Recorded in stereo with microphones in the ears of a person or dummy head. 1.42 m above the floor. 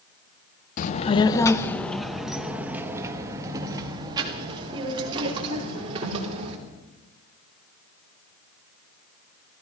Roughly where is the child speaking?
Left.